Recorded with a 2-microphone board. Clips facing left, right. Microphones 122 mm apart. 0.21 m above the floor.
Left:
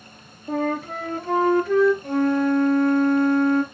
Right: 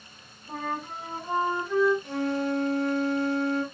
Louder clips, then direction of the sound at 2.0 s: Left 8 dB; 55° left (ahead or behind).